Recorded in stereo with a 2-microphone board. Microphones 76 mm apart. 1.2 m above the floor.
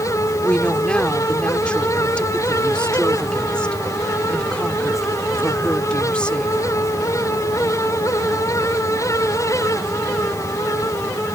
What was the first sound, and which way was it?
A woman speaking, 15° left (ahead or behind).